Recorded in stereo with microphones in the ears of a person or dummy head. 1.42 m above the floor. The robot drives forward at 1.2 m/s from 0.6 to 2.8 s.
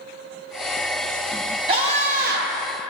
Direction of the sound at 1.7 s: 30° right (ahead or behind).